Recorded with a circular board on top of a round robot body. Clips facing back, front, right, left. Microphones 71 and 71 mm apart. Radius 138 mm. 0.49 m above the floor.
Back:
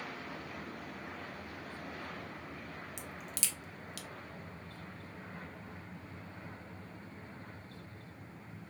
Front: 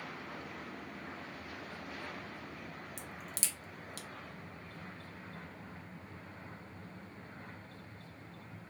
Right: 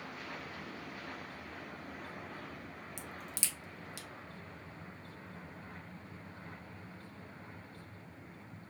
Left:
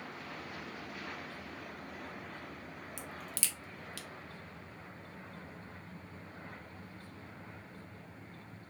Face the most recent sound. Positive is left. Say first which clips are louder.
# back 1 dB, left 1 dB
turn(degrees=-25)